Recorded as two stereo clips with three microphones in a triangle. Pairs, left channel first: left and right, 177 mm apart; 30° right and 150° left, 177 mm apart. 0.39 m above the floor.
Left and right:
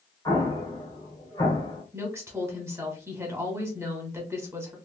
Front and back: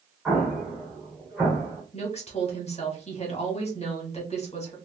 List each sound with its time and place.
0.2 s an explosion: 65° left, 1.1 m
1.9 s a woman speaking: 25° right, 1.1 m